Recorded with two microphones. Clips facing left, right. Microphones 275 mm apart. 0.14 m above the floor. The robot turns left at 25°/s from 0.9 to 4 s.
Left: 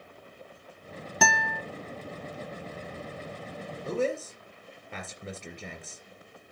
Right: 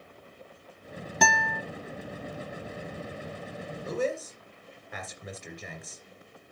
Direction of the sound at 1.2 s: Centre (ahead or behind).